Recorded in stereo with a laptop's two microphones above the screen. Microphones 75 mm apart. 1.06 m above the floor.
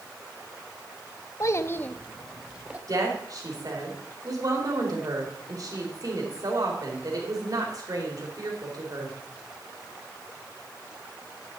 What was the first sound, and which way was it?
A child speaking, 45° left (ahead or behind).